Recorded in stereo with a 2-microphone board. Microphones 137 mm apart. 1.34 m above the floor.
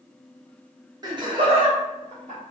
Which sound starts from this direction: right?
Laughter, at 1.0 s.